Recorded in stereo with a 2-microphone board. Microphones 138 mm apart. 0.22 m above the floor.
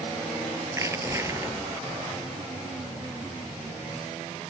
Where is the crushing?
20° right (ahead or behind).